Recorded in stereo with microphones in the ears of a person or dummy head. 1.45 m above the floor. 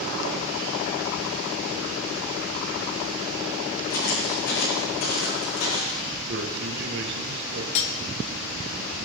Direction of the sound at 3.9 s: 70° left (ahead or behind).